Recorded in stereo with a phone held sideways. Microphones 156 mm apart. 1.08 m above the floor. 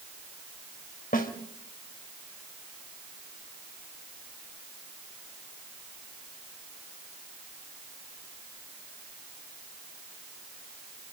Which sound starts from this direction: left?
A snare drum, at 1.1 s.